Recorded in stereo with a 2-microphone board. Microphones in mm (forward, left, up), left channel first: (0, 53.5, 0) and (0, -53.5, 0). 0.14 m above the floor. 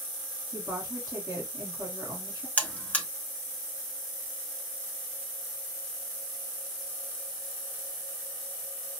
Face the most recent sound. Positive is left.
turn(degrees=15)  # may be behind; listen again after turning